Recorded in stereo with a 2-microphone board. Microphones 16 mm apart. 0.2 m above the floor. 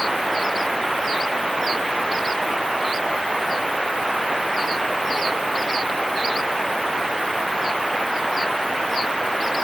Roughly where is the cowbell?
I don't hear a cowbell.